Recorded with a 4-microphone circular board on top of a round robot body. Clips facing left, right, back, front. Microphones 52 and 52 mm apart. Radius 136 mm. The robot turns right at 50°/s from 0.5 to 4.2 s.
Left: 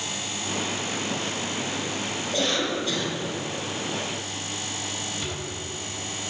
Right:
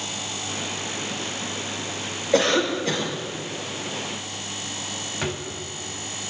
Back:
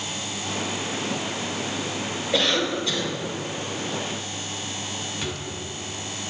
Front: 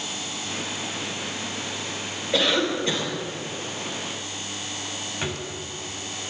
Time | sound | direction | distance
2.3 | a cough | 90° right | 5 m
5.2 | a drawer | 60° right | 4 m